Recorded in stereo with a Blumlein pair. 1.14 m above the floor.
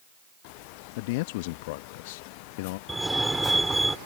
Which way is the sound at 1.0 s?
50° left.